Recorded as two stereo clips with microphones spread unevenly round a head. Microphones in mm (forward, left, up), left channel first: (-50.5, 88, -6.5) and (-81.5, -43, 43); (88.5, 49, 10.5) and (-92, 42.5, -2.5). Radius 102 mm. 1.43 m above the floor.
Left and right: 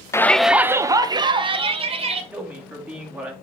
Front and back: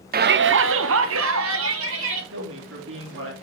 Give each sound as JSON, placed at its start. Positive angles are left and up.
{"t": 0.1, "sound": "a shout", "azimuth_deg": 145, "distance_m": 0.6}
{"t": 2.3, "sound": "a man speaking", "azimuth_deg": 180, "distance_m": 2.5}